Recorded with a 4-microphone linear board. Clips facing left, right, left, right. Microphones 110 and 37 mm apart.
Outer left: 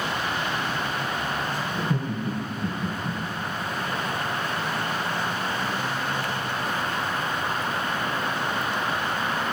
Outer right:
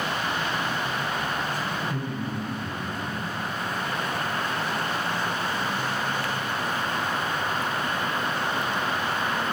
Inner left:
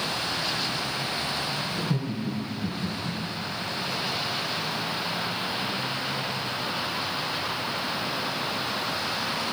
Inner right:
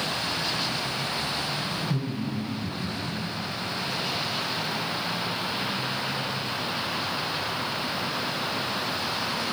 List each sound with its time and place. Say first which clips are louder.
1.8 s laughter: outer left 2 dB, even; 25° left (ahead or behind), 3 m